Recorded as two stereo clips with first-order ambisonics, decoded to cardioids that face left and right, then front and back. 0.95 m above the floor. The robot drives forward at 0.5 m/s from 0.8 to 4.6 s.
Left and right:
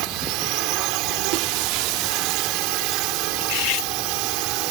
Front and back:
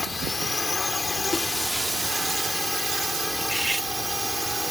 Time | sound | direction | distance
0.0 | a drone | 80° right | ?
1.3 | breaking glass | 80° right | ?
3.4 | cutlery clinking | 85° left | ?